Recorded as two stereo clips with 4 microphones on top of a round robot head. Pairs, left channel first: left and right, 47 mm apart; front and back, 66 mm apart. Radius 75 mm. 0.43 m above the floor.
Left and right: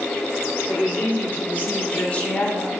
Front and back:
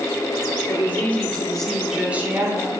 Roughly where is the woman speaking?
Ahead left.